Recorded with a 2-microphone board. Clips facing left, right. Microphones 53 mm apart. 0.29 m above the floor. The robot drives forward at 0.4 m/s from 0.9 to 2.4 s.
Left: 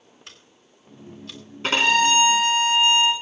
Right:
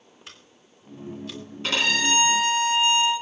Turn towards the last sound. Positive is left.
turn(degrees=35)  # may be behind; listen again after turning